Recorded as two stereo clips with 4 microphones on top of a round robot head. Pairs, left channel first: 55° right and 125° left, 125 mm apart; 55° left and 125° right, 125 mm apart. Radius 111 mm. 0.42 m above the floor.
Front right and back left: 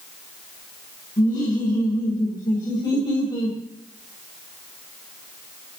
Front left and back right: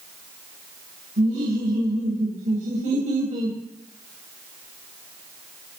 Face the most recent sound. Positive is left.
turn(degrees=-110)